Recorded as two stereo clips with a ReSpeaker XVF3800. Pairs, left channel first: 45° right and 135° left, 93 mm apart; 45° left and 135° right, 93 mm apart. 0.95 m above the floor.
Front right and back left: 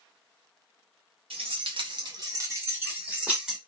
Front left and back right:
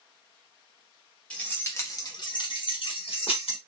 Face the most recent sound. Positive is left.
turn(degrees=50)